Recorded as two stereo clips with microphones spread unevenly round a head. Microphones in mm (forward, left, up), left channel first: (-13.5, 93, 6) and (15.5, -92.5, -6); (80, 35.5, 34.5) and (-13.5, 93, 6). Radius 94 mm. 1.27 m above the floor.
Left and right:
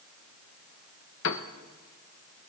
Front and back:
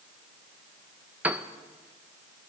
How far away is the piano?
About 1.3 m.